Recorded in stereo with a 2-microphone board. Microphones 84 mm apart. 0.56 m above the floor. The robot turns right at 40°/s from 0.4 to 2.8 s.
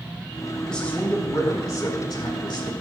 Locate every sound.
0.7 s a man speaking: 10° left, 1.7 m; by 2.7 s 95° left, 1.7 m